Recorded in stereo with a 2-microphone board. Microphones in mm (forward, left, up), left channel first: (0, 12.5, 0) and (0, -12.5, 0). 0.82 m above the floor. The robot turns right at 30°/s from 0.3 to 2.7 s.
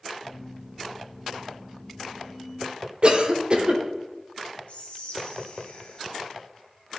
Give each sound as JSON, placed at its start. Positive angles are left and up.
{"t": 3.0, "sound": "a cough", "side_deg": -40, "distance_m": 0.7}
{"t": 4.7, "sound": "whispering", "side_deg": 65, "distance_m": 1.4}